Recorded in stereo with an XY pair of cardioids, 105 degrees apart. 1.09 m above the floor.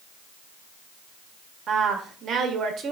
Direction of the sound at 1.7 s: 55° right.